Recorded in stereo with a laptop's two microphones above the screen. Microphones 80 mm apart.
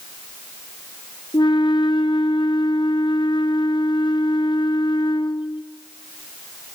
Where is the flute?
65° left (ahead or behind), 1.1 m.